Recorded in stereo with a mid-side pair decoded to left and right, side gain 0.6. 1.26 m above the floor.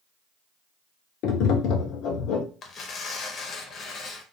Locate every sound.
1.2 s tapping: 65° left, 0.6 m
2.6 s tearing paper: 45° left, 0.7 m